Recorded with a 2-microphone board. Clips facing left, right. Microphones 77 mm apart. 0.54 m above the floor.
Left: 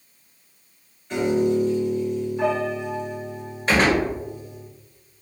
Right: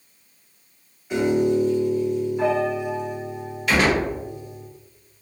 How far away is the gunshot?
About 1.2 m.